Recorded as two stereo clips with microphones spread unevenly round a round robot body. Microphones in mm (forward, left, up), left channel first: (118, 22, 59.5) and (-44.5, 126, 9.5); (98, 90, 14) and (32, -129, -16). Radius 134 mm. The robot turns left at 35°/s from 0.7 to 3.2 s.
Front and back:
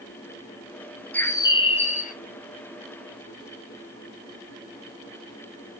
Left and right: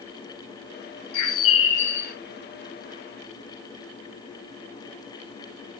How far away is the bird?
About 0.7 m.